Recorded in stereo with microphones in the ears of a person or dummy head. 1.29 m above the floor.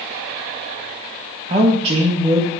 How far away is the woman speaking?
About 1.4 m.